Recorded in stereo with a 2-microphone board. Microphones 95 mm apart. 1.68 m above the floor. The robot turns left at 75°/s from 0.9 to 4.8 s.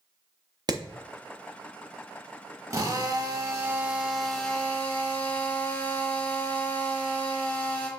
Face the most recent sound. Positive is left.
turn(degrees=140)